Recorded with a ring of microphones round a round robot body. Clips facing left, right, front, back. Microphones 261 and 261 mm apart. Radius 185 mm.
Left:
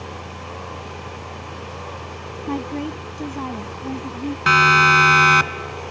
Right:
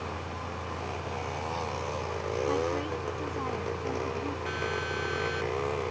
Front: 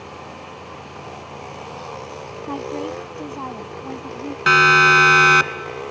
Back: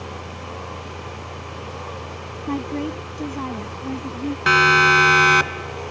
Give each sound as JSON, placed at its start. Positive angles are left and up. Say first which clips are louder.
{"t": 2.5, "sound": "a woman speaking", "louder": "left 7 dB, back 2 dB", "azimuth_deg": 120}
{"t": 4.5, "sound": "a siren", "louder": "left 10 dB, front 2 dB", "azimuth_deg": 85}